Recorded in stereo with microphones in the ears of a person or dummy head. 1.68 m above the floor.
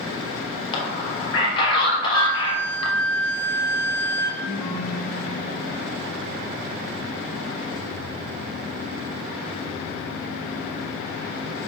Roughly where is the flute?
Left.